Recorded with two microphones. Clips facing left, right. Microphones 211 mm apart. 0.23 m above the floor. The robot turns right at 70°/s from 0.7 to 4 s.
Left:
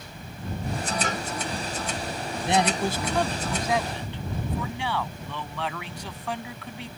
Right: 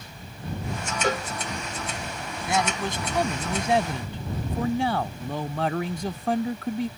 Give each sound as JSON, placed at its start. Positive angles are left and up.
{"t": 1.0, "sound": "a cowbell", "side_deg": -40}
{"t": 2.5, "sound": "a man speaking", "azimuth_deg": 140}